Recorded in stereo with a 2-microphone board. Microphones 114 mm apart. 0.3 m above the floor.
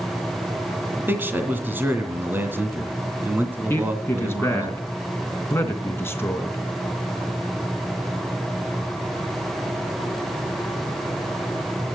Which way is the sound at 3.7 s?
20° left (ahead or behind).